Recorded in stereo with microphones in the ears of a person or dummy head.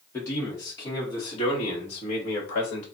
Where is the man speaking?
20° left (ahead or behind), 2 m; by 2.9 s 65° left (ahead or behind), 1.4 m.